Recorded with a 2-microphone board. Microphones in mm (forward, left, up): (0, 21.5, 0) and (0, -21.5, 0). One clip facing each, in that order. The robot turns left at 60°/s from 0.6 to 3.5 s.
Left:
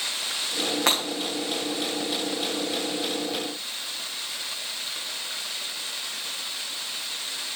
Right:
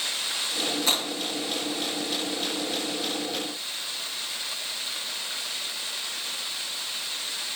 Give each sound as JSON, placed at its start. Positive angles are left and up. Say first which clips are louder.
{"t": 0.9, "sound": "breaking glass", "louder": "left 3 dB", "side_deg": 70, "distance_m": 4.5}